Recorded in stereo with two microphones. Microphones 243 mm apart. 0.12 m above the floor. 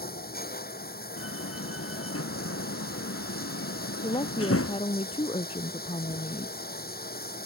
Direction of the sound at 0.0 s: 40° left (ahead or behind).